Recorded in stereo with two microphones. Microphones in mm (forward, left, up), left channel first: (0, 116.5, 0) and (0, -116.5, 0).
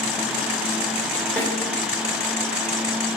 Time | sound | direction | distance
1.4 | a snare drum | 10° left (ahead or behind) | 3.5 m